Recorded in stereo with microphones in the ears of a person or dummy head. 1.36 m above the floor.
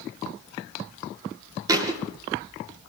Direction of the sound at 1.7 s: 20° right (ahead or behind).